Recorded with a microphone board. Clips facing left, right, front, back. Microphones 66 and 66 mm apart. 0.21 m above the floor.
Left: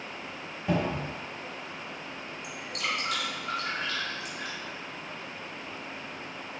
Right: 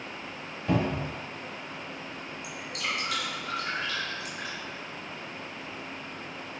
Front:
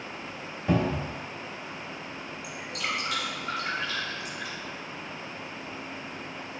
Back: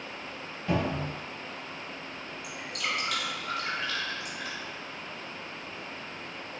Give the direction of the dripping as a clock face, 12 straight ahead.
9 o'clock.